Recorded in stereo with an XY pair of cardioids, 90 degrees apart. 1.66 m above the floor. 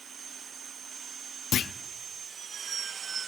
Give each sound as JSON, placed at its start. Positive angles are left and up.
{"t": 1.5, "sound": "a clunk", "azimuth_deg": 65, "distance_m": 0.5}